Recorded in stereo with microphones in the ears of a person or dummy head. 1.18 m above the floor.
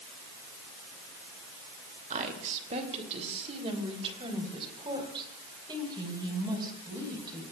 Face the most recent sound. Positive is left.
turn(degrees=-25)  # may be behind; listen again after turning